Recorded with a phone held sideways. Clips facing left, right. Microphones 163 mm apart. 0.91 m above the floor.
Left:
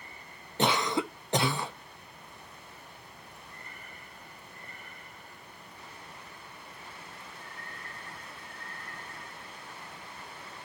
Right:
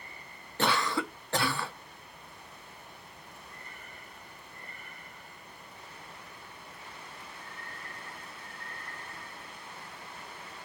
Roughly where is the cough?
Centre.